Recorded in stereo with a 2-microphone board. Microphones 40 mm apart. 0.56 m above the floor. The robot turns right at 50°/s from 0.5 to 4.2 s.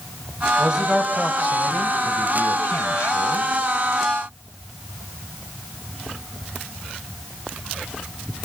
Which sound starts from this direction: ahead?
A man speaking, at 0.6 s.